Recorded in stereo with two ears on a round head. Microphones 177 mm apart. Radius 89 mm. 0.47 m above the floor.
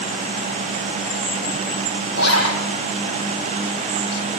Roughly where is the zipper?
Left.